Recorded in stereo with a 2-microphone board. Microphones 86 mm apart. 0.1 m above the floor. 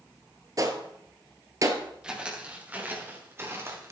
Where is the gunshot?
40° right (ahead or behind), 1.2 m.